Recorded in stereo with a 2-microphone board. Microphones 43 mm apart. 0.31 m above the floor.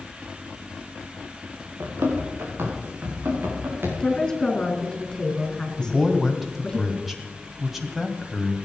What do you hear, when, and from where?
1.8 s running footsteps: 60° right (ahead or behind), 4.5 m; by 3.9 s 55° right (ahead or behind), 7 m
4.0 s a woman speaking: 15° left (ahead or behind), 4.5 m
5.8 s a man speaking: 5° right (ahead or behind), 2.5 m